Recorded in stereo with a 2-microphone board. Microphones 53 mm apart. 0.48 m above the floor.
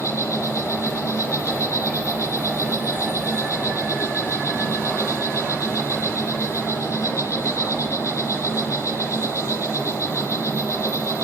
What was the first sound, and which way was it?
An insect, 85° left.